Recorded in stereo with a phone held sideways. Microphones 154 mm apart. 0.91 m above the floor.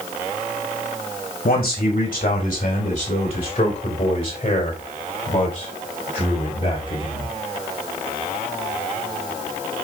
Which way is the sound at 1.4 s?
65° left (ahead or behind).